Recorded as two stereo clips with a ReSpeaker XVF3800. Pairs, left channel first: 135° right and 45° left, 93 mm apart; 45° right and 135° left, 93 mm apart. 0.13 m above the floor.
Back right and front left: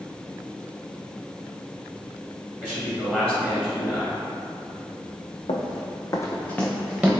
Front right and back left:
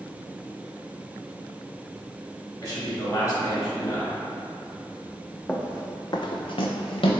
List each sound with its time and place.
2.6 s a man speaking: 60° right, 1.8 m
5.5 s running footsteps: 125° right, 0.7 m; by 7.1 s 35° right, 0.8 m